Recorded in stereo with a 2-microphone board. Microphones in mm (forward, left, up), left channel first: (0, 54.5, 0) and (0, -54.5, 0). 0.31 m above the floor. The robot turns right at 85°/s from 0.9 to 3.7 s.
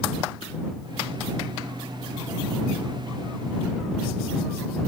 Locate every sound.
Only background noise.